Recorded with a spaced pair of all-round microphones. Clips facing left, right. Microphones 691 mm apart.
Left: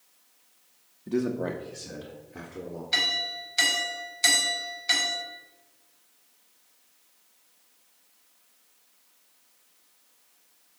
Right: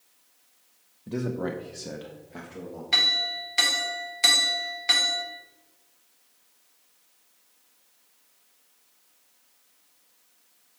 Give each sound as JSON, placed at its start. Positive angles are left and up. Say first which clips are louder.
{"t": 1.1, "sound": "a man speaking", "louder": "left 2 dB", "side_deg": -5, "distance_m": 0.6}
{"t": 2.9, "sound": "a clink", "louder": "even", "side_deg": -80, "distance_m": 1.8}